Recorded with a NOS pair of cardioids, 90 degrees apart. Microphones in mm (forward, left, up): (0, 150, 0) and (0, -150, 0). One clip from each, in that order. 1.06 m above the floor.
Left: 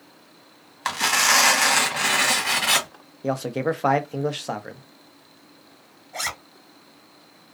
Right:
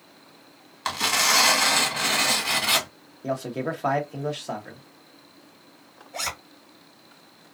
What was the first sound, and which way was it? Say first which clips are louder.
Tearing paper: left 2 dB; 10° left.